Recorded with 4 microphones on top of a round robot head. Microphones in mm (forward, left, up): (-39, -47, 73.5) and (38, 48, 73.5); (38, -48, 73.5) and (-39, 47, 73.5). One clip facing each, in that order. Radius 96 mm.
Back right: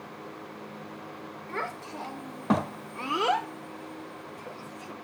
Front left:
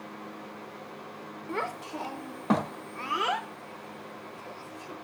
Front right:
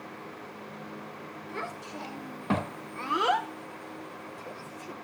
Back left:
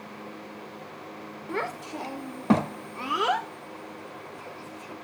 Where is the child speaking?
120° left, 1.0 m; by 4.9 s 90° right, 1.1 m.